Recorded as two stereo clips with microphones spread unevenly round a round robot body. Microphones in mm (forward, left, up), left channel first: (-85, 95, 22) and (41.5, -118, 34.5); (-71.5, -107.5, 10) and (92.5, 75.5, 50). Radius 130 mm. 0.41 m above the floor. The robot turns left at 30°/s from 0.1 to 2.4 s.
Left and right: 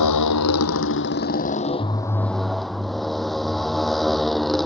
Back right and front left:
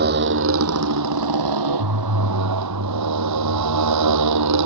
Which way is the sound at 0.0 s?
100° left.